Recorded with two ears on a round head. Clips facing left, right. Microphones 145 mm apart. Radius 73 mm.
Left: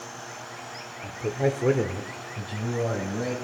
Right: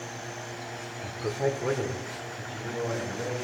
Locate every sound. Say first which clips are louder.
1.0 s a man speaking: left 3 dB; centre (ahead or behind), 1.0 m; by 3.4 s 70° left (ahead or behind), 2.5 m